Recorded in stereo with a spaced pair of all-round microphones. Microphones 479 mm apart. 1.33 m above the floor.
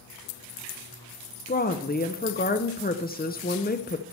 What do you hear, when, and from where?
1.5 s a woman speaking: 20° left (ahead or behind), 0.5 m